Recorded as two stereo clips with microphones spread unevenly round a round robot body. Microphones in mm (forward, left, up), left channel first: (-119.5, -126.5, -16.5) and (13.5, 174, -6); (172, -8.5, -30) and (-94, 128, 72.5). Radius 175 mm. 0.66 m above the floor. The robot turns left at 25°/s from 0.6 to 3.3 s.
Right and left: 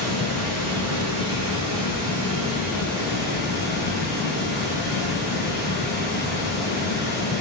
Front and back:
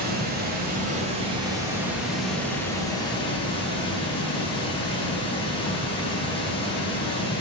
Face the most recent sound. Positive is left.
turn(degrees=15)